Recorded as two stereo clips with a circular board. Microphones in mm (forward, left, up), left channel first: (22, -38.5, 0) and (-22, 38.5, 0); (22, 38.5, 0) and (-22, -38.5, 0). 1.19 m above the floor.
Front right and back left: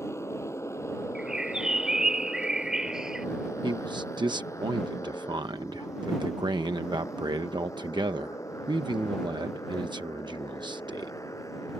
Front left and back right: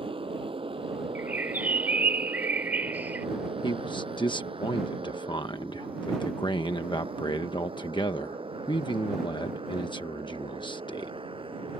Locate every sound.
0.0 s a motorcycle: 120° right; by 11.8 s 115° right
1.1 s a bird: 165° right
3.6 s a man speaking: 90° left